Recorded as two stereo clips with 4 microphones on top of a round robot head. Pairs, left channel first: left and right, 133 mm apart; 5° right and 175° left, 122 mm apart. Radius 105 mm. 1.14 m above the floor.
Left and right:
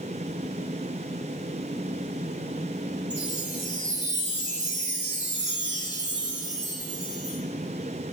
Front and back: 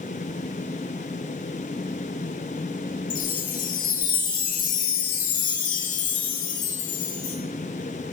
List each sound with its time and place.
3.1 s a chime: 5° right, 1.5 m